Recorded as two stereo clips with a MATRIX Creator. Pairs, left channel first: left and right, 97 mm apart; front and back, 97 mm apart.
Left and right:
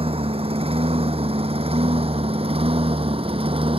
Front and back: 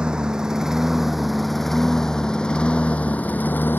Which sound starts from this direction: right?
A lawn mower, at 0.0 s.